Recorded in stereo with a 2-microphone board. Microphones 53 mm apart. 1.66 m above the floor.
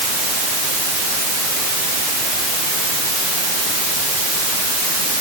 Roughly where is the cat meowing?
No cat meowing in this recording.